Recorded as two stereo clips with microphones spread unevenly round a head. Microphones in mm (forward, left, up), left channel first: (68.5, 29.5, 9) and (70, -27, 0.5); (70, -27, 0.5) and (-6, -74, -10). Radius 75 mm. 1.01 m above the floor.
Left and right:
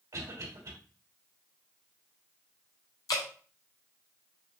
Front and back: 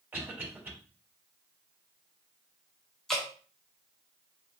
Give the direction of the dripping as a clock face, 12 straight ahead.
8 o'clock.